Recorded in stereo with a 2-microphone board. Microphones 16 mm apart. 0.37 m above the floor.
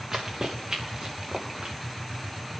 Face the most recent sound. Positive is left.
turn(degrees=-80)